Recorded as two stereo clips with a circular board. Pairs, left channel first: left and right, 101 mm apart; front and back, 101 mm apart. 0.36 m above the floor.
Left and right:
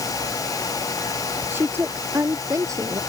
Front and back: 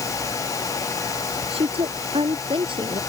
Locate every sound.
1.5 s a woman speaking: 160° right; by 3.0 s 145° right